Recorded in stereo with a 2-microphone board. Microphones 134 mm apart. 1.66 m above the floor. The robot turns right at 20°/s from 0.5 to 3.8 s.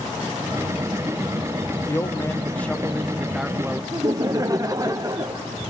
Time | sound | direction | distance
1.9 | a man speaking | 155° left | 0.8 m
3.9 | laughter | 25° right (ahead or behind) | 0.9 m